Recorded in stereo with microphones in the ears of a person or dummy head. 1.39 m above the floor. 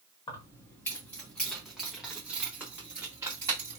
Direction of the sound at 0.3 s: 25° left (ahead or behind).